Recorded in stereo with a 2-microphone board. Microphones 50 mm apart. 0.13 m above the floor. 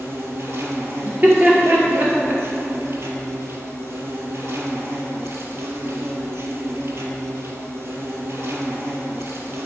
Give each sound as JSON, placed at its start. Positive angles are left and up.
{"t": 0.0, "sound": "an insect", "side_deg": -60, "distance_m": 1.3}
{"t": 1.0, "sound": "laughter", "side_deg": -35, "distance_m": 2.5}